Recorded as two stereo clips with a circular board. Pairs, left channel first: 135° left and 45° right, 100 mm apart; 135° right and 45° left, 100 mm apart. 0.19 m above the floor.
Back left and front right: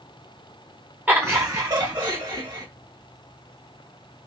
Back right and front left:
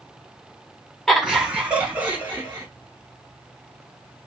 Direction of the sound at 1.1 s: 50° right.